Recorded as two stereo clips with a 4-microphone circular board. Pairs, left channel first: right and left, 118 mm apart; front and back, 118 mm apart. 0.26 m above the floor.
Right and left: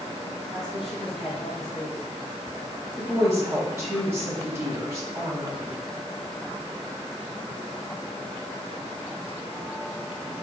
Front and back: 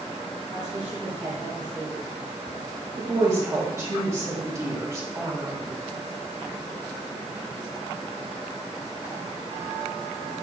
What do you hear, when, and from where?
0.5 s a woman speaking: 175° right, 1.2 m
3.0 s a woman speaking: 140° left, 1.1 m